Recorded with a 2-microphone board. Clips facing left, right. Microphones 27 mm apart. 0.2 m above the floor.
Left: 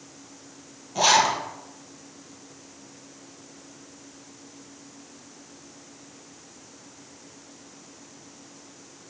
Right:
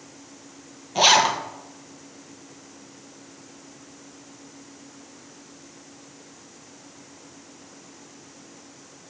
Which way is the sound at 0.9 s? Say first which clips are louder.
Right 2 dB; 35° right (ahead or behind).